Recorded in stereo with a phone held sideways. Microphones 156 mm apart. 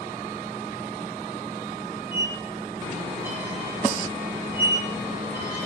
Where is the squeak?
15° right (ahead or behind), 1.3 m.